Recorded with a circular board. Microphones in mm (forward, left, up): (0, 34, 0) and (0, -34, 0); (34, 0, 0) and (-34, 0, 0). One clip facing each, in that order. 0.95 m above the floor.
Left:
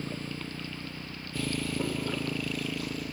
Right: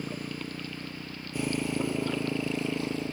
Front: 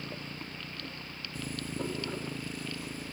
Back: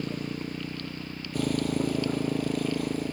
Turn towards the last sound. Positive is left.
turn(degrees=-150)